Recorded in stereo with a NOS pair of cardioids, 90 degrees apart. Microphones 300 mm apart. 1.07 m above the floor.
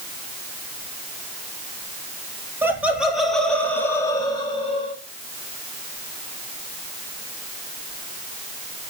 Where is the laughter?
10° right, 2.5 m; by 5.0 s 20° left, 3 m.